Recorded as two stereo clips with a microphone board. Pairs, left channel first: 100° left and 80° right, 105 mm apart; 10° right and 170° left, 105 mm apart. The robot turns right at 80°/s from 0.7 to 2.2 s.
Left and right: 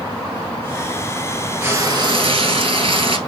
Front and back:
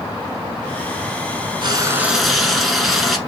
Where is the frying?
150° right, 1.2 m; by 3.2 s 100° right, 1.2 m.